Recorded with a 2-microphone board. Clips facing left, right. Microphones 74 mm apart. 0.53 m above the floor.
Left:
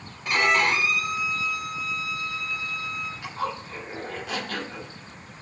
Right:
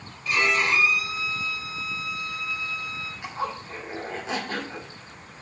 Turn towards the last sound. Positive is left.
turn(degrees=-20)  # may be behind; listen again after turning